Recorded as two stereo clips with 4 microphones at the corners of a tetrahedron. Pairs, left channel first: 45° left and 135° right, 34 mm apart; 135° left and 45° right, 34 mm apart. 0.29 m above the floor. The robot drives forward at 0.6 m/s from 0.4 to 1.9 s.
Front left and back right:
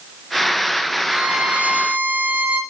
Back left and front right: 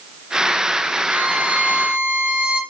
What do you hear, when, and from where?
1.1 s a violin: 65° right, 1.0 m; by 2.6 s 95° right, 0.9 m